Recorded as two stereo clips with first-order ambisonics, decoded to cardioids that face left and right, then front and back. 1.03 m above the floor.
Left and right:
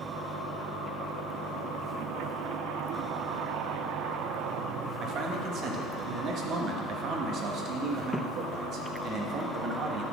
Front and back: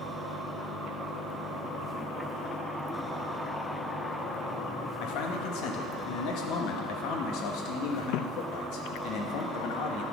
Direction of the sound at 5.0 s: 35° right.